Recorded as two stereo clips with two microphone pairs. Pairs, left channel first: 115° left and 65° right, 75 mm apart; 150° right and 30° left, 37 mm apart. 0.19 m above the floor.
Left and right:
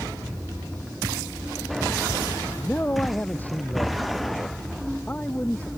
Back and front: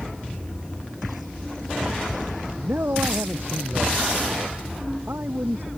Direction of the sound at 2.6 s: 45° left.